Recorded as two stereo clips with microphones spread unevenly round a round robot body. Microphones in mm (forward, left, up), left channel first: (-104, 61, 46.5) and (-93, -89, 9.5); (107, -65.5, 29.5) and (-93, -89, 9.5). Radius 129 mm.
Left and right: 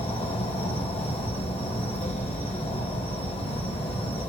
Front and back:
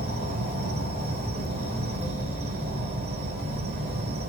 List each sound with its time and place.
0.0 s an insect: 145° left, 1.9 m